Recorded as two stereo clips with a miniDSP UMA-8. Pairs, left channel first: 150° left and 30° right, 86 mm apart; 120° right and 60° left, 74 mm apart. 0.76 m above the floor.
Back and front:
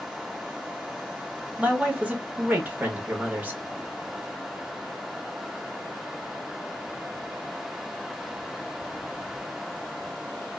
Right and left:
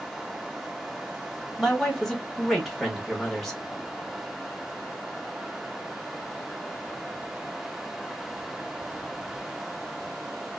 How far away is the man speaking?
About 0.9 m.